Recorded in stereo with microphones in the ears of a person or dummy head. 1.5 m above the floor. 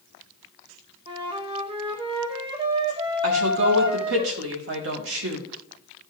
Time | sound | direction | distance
1.1 | a flute | 25° right (ahead or behind) | 0.8 m
3.2 | a woman speaking | 80° right | 1.6 m